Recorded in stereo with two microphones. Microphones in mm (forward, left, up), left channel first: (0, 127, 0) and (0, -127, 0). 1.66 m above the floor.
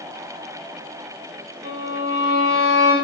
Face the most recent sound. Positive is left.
turn(degrees=-45)  # may be behind; listen again after turning